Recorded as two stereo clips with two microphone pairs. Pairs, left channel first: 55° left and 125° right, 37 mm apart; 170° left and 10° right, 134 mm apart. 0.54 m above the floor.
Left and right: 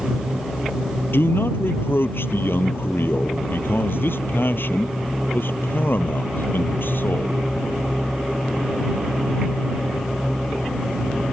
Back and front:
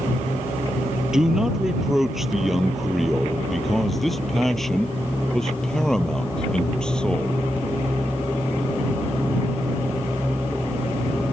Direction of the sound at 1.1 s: 75° left.